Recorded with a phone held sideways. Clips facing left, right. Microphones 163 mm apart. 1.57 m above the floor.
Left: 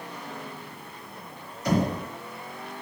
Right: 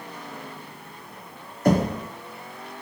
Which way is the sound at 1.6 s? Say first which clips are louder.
Right 4 dB; 50° right (ahead or behind).